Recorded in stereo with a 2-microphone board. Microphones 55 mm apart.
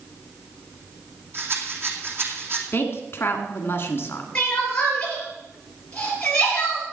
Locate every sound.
1.3 s a rattle: 45° right (ahead or behind), 2 m
2.7 s a woman speaking: 45° left (ahead or behind), 1.9 m
4.3 s crying: 20° left (ahead or behind), 5 m